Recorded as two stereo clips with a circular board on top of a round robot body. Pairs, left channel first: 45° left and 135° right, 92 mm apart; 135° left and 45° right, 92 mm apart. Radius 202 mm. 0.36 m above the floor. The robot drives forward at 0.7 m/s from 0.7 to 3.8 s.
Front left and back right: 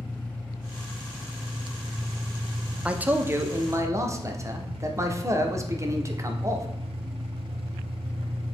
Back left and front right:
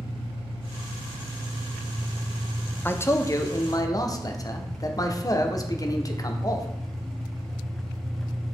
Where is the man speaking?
165° left, 0.8 m; by 6.7 s 175° left, 1.2 m.